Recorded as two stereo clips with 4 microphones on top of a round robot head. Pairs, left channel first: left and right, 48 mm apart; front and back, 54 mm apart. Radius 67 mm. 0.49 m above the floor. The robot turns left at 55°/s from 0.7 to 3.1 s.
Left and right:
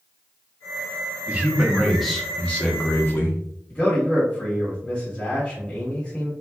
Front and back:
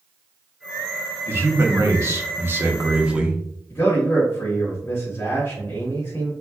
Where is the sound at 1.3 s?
140° right, 1.0 m; by 3.4 s 120° left, 1.0 m.